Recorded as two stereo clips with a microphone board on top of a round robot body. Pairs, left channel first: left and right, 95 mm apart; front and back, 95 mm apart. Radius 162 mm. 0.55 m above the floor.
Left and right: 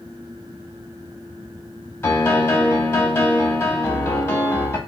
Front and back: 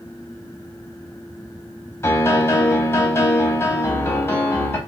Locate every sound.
2.0 s a piano: 45° left, 1.0 m